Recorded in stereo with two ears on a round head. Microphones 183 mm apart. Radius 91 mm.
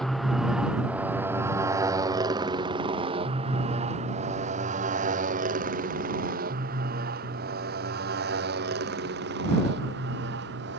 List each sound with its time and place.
0.0 s a motorcycle: centre (ahead or behind); by 10.8 s 60° right (ahead or behind)